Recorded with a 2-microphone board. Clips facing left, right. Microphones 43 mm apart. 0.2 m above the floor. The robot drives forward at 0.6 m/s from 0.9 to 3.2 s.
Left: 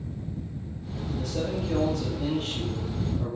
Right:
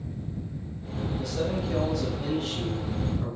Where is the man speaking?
50° left (ahead or behind), 3.5 m; by 3.4 s 40° left (ahead or behind), 4.5 m.